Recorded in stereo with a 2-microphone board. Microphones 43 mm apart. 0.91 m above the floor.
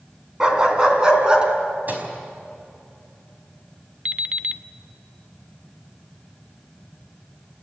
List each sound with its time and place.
0.4 s a dog barking: 15° right (ahead or behind), 3 m; by 1.5 s 20° right (ahead or behind), 3.5 m
1.9 s a microwave: 40° right (ahead or behind), 5 m
4.0 s an alarm clock: 30° right (ahead or behind), 0.6 m